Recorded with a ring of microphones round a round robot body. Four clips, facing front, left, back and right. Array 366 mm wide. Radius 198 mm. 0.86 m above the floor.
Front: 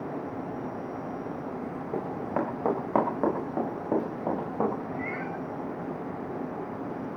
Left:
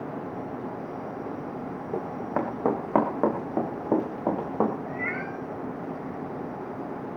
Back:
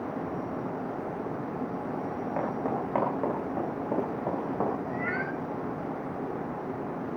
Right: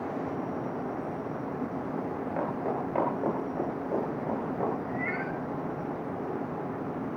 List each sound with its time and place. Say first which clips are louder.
1.9 s running footsteps: left 6 dB, front 5 dB; 60° left, 7.5 m; by 4.7 s 85° left, 8 m
4.9 s a cat meowing: even, back 2 dB; 145° left, 3 m